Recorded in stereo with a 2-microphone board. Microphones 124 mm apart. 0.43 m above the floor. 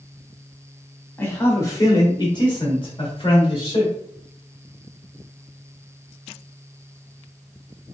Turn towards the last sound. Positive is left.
turn(degrees=45)  # may be behind; listen again after turning